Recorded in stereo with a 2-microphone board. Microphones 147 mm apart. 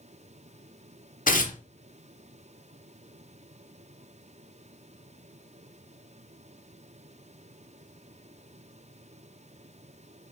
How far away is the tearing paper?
About 0.7 m.